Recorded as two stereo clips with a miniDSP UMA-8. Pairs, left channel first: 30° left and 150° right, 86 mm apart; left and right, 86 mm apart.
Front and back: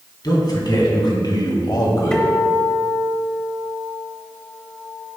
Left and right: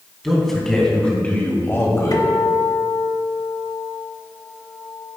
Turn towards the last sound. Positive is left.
turn(degrees=110)